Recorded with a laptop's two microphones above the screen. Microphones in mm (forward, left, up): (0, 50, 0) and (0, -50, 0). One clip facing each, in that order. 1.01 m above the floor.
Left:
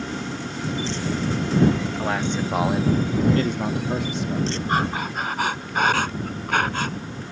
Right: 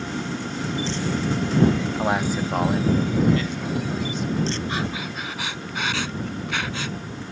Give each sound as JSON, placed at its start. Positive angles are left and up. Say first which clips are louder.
{"t": 2.0, "sound": "a man speaking", "louder": "right 1 dB", "side_deg": -20}
{"t": 4.7, "sound": "breathing", "louder": "left 4 dB", "side_deg": 45}